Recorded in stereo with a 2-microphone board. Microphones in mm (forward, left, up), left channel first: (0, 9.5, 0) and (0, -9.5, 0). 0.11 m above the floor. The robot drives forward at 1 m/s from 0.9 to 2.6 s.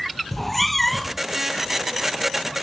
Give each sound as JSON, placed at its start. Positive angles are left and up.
{"t": 0.3, "sound": "a cat meowing", "side_deg": 10}